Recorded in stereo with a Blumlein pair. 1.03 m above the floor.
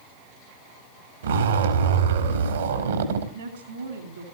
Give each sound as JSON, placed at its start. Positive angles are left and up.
{"t": 1.2, "sound": "a zipper", "azimuth_deg": -65, "distance_m": 2.5}
{"t": 3.3, "sound": "a woman speaking", "azimuth_deg": -70, "distance_m": 3.0}